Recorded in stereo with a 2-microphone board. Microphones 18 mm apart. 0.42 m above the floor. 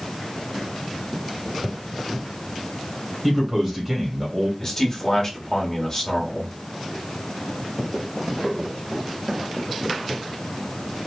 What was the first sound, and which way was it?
A man speaking, 25° right (ahead or behind).